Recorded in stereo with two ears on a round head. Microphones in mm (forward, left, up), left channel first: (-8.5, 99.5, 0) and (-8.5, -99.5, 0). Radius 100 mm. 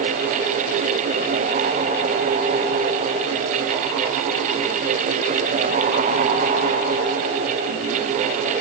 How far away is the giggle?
No giggle in this recording.